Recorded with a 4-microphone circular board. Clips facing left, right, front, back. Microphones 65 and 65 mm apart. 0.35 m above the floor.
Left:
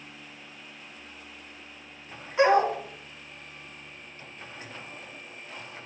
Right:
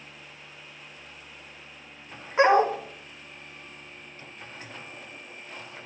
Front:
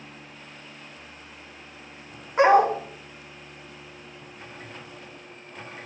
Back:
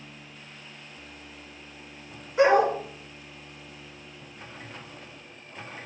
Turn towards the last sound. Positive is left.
turn(degrees=-30)